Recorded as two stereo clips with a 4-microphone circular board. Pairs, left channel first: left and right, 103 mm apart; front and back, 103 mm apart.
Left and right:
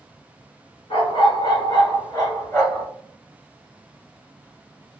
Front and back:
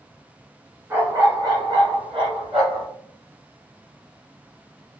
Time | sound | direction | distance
0.9 | a dog barking | 115° left | 1.6 m